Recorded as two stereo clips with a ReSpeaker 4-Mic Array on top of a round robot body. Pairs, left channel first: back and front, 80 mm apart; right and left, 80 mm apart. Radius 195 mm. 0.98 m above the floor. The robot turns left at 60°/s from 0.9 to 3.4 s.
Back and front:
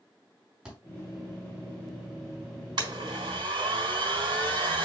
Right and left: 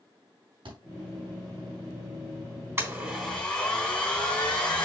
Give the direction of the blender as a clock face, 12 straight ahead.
11 o'clock.